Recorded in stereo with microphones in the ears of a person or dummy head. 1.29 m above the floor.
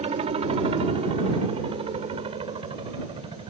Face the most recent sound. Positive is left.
turn(degrees=-25)  # may be behind; listen again after turning